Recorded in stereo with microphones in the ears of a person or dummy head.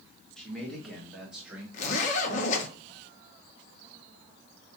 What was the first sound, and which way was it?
A man speaking, centre (ahead or behind).